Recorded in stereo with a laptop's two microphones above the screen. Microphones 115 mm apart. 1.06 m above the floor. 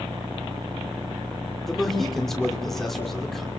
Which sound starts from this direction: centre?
A man speaking, at 1.7 s.